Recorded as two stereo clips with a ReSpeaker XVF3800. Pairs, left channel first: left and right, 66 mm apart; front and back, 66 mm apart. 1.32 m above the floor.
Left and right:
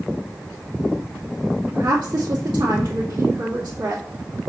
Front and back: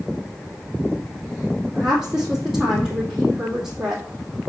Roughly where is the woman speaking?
Right.